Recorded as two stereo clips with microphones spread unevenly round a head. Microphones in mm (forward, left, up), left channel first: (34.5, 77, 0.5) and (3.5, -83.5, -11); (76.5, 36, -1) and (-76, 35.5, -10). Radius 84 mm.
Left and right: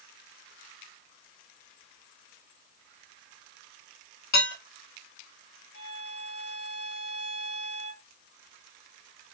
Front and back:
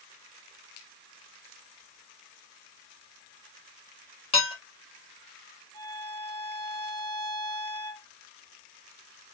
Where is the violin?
60° left, 3 m.